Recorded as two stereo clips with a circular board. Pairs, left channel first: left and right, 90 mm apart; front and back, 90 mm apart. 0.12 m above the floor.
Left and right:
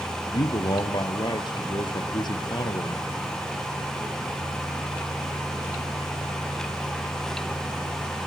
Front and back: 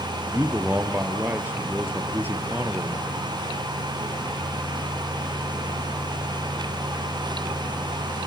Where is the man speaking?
115° left, 1.9 m.